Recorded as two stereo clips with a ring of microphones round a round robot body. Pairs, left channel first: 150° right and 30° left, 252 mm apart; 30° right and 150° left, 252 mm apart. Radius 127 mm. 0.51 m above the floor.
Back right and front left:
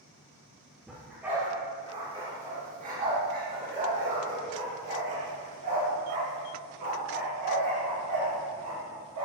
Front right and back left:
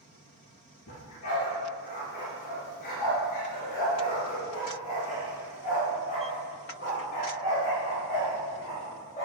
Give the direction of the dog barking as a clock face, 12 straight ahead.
2 o'clock.